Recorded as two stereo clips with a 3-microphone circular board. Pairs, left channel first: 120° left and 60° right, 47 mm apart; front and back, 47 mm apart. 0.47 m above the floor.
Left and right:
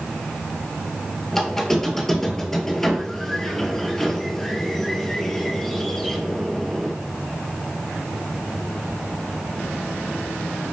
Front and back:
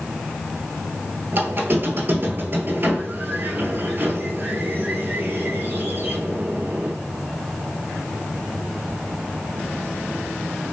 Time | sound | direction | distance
1.3 | a squeak | 160° right | 0.6 m